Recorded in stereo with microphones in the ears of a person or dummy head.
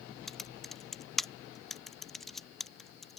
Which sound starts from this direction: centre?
Typing on a keyboard, at 0.3 s.